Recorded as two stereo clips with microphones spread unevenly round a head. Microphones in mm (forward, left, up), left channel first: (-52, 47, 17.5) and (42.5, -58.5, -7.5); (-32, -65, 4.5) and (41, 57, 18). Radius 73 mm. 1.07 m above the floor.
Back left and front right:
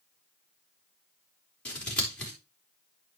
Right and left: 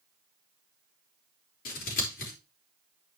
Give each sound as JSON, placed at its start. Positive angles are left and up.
{"t": 1.6, "sound": "scissors", "azimuth_deg": -145, "distance_m": 4.0}